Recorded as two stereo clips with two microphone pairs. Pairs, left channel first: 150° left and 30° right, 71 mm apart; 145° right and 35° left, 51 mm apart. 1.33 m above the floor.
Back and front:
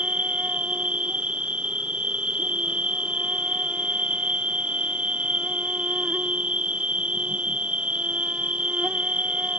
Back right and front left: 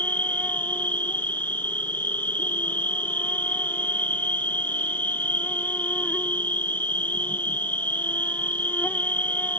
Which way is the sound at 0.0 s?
100° right.